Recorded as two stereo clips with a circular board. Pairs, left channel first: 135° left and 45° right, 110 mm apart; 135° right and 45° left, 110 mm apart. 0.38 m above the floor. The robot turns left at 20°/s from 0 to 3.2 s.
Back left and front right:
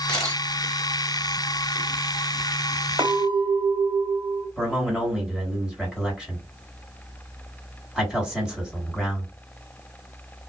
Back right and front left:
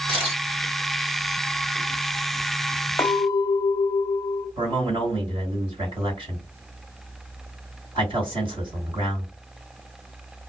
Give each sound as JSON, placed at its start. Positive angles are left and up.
{"t": 0.1, "sound": "a camera shutter", "azimuth_deg": 55, "distance_m": 1.5}
{"t": 3.0, "sound": "a clink", "azimuth_deg": -75, "distance_m": 1.0}
{"t": 4.6, "sound": "a man speaking", "azimuth_deg": 35, "distance_m": 2.0}